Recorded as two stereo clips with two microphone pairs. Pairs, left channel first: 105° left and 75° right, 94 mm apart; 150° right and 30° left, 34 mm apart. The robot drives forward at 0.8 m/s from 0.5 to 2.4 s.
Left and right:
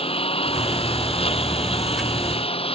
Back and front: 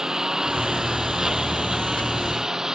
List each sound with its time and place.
0.0 s a lawn mower: 100° left